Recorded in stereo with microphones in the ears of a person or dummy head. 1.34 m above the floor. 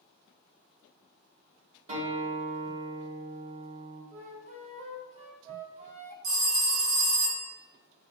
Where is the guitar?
40° right (ahead or behind), 1.2 m.